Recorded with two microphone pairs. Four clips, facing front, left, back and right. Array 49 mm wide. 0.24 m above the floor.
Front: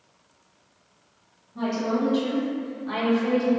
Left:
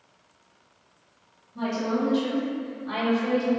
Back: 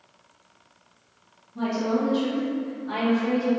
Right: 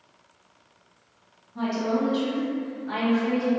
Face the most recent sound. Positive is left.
turn(degrees=45)